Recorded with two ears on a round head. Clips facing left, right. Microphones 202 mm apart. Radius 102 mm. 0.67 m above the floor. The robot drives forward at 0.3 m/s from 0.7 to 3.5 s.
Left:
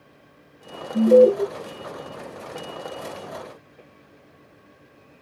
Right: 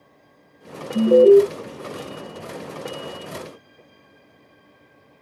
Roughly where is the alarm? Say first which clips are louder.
Right 3 dB; centre.